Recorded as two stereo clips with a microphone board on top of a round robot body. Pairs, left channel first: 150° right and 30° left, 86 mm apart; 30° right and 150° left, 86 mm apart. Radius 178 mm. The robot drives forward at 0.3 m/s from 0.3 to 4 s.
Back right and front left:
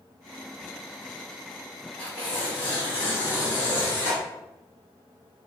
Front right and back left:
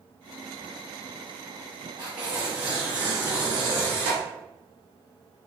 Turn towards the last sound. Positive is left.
turn(degrees=180)